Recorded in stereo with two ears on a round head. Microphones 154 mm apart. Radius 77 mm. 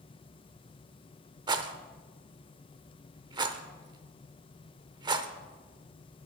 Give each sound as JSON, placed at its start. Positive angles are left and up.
{"t": 1.5, "sound": "a rattle", "side_deg": -25, "distance_m": 0.7}